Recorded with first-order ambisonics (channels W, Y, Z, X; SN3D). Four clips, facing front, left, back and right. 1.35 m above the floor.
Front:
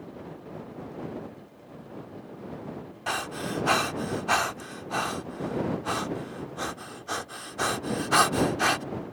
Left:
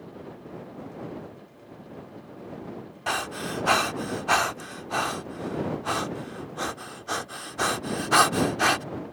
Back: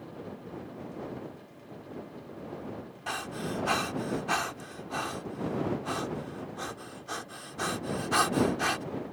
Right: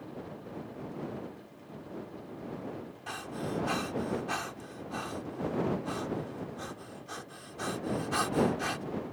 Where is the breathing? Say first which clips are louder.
Left 9 dB, front 4 dB; 65° left.